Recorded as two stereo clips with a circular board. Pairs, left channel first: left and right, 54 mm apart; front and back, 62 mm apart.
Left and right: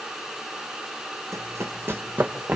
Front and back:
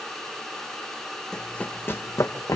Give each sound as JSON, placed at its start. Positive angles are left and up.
{"t": 1.3, "sound": "running footsteps", "azimuth_deg": -75, "distance_m": 2.0}